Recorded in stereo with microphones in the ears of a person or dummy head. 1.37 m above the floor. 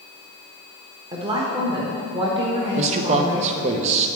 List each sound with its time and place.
1.1 s a woman speaking: 25° right (ahead or behind), 1.0 m
2.8 s a man speaking: 35° right (ahead or behind), 0.7 m